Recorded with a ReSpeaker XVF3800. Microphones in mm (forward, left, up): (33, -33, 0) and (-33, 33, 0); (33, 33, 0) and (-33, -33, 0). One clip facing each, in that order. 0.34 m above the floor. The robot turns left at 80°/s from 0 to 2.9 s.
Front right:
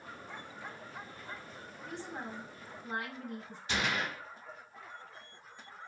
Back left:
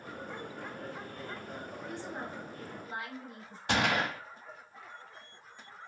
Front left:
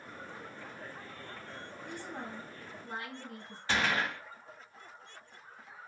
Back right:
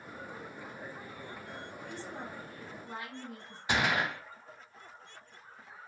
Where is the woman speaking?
75° left, 4 m; by 3.6 s 5° right, 4 m.